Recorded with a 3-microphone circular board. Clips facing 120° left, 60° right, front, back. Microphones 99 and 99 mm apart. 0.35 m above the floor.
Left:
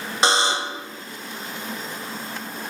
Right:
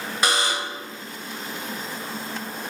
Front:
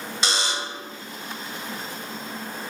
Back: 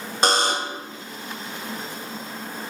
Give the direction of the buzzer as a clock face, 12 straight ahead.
6 o'clock.